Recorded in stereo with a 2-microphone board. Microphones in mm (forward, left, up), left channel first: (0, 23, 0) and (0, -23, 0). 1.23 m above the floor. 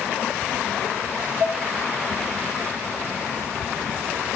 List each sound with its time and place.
1.4 s dishes clattering: 25° right (ahead or behind), 4.5 m